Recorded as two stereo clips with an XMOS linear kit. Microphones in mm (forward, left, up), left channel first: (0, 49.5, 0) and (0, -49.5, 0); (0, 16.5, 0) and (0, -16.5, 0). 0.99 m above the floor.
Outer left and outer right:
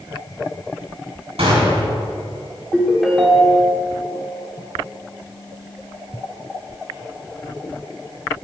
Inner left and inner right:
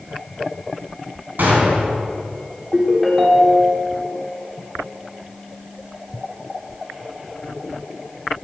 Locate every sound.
1.4 s a gunshot: 85° right, 4.5 m
2.7 s a ringtone: centre (ahead or behind), 2.0 m